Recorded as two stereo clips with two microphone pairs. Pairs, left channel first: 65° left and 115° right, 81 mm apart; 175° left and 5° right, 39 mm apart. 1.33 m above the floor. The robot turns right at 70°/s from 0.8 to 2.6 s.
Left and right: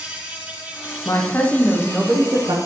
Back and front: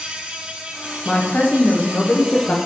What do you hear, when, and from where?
0.0 s an insect: 50° right, 1.7 m; by 2.7 s 75° left, 1.7 m
1.1 s a woman speaking: 110° left, 0.9 m; by 2.6 s 145° right, 0.9 m